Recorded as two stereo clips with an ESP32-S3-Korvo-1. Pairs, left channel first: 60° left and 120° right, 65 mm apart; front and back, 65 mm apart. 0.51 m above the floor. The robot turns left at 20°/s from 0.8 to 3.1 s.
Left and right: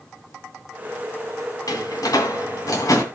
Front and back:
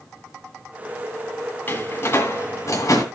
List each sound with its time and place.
1.7 s a door slam: 55° left, 2.5 m; by 3.0 s 30° left, 2.5 m